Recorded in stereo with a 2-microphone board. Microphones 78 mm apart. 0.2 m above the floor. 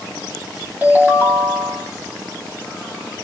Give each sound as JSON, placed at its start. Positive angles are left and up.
{"t": 0.8, "sound": "a ringtone", "side_deg": -20, "distance_m": 0.9}